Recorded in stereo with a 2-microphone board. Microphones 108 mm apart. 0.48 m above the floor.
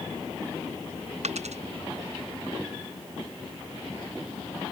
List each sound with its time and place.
1.2 s a dropped coin: 85° right